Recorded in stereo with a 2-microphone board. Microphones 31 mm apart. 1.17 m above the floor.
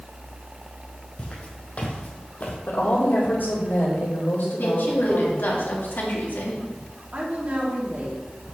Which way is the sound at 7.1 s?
50° right (ahead or behind).